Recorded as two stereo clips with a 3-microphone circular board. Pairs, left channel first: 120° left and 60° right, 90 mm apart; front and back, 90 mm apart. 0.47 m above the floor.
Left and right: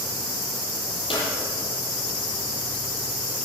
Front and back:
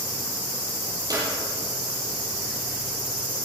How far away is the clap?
About 8.5 m.